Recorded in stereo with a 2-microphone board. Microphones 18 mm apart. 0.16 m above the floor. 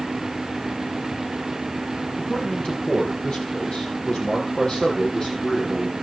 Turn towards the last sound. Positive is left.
turn(degrees=45)  # may be behind; listen again after turning